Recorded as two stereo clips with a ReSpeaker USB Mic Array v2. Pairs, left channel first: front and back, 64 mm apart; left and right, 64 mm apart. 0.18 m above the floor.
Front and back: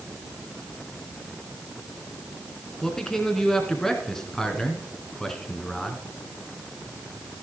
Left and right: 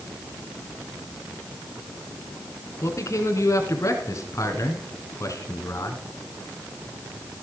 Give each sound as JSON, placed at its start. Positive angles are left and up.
{"t": 2.8, "sound": "a man speaking", "azimuth_deg": 85, "distance_m": 2.0}